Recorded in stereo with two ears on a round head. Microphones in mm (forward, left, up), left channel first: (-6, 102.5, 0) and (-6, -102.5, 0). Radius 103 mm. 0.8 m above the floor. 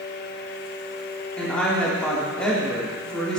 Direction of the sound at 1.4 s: 5° left (ahead or behind).